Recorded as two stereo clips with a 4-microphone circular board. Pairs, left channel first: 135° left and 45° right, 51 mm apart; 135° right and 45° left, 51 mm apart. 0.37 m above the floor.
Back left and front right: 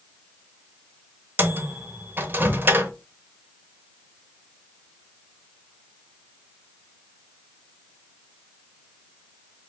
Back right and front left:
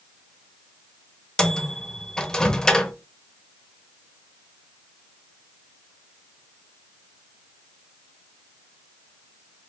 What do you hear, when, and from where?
1.4 s a microwave: 65° right, 0.8 m